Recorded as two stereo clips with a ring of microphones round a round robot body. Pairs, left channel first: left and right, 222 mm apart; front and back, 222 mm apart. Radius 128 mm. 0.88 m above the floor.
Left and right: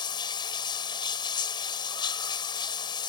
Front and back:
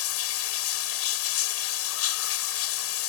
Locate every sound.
0.0 s running water: 15° left